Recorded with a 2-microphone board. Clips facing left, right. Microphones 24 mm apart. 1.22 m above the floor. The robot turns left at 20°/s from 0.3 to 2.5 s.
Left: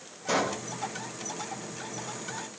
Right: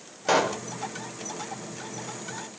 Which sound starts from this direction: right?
A pop, at 0.3 s.